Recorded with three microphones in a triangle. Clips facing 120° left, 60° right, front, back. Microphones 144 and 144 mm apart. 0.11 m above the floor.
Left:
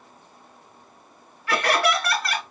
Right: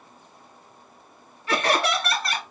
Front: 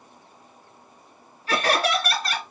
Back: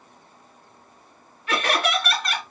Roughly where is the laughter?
Ahead.